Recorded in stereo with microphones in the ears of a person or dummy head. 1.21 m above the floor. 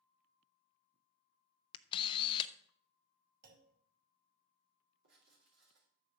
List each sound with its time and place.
1.7 s a camera shutter: 30° left (ahead or behind), 0.6 m
3.4 s a clunk: 50° right (ahead or behind), 2.5 m
5.0 s writing: 55° right (ahead or behind), 3.5 m